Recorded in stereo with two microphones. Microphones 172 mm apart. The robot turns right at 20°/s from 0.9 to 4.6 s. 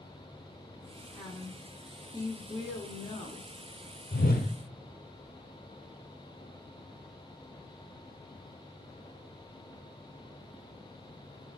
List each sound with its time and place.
1.1 s a woman speaking: 20° left, 1.3 m; by 3.5 s 70° left, 1.3 m
4.1 s a whoosh: 65° left (ahead or behind), 1.4 m; by 4.5 s 70° left (ahead or behind), 1.4 m